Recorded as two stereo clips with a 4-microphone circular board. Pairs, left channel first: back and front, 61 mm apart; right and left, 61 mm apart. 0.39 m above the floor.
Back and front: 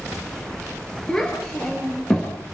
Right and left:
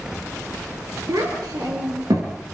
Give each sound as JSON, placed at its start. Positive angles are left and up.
{"t": 1.1, "sound": "a child speaking", "azimuth_deg": 100, "distance_m": 6.0}